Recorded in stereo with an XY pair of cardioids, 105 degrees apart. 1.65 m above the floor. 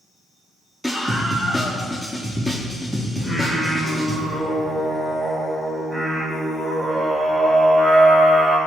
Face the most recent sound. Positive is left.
turn(degrees=-30)